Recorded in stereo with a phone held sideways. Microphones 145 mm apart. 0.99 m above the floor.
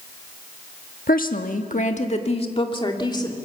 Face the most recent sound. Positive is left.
turn(degrees=30)  # may be behind; listen again after turning